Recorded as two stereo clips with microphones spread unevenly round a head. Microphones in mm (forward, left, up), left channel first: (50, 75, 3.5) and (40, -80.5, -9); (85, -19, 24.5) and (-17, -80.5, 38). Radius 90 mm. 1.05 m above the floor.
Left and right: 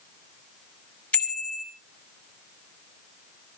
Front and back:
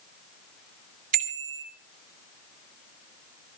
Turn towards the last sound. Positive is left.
turn(degrees=170)